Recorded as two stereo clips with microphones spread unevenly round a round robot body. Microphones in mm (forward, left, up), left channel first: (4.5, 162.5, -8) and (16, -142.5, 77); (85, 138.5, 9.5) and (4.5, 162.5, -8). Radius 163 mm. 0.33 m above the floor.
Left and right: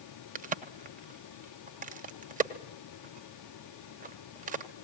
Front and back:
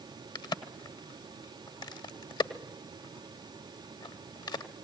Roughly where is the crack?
Ahead.